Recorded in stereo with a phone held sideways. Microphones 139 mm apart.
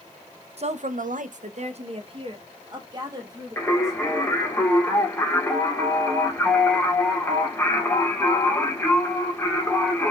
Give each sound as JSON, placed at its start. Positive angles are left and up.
{"t": 0.6, "sound": "a woman speaking", "side_deg": -50, "distance_m": 0.6}
{"t": 3.6, "sound": "singing", "side_deg": 15, "distance_m": 1.5}